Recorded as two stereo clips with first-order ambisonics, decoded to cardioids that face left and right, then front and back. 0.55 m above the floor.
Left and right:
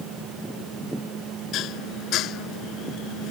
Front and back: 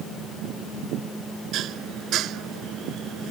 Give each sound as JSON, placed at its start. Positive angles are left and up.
{"t": 1.5, "sound": "dishes clattering", "azimuth_deg": 135}